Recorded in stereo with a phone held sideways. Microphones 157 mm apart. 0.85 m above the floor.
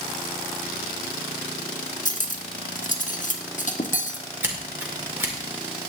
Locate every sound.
2.0 s cutlery clinking: 55° left (ahead or behind), 1.0 m
4.4 s scissors: 15° right (ahead or behind), 2.0 m